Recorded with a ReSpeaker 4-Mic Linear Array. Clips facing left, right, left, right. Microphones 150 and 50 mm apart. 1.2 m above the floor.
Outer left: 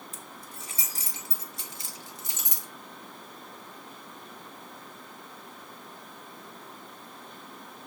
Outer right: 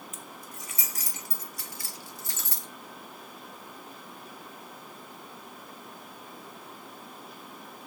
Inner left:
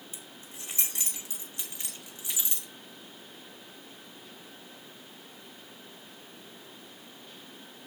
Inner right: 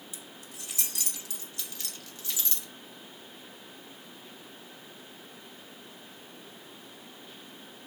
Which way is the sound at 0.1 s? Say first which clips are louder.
Outer right 1 dB, inner right 1 dB; 35° left (ahead or behind).